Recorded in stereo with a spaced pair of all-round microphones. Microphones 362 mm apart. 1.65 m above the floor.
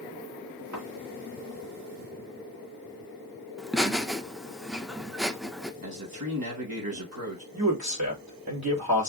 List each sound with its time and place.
0.7 s a thud: 65° right (ahead or behind), 4 m
3.6 s laughter: centre (ahead or behind), 0.7 m
5.8 s a man speaking: 65° right (ahead or behind), 2.5 m
7.5 s a man speaking: 75° right (ahead or behind), 2.5 m